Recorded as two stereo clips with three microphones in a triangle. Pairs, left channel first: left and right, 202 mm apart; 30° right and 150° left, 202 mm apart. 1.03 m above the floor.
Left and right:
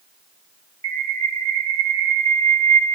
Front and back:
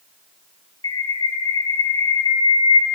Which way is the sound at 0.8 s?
25° left.